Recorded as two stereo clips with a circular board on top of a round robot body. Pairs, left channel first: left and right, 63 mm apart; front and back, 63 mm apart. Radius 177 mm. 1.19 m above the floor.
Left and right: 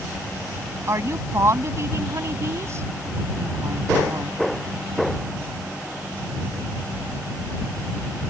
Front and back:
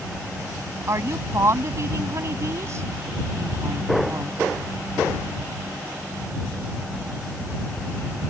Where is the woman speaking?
135° right.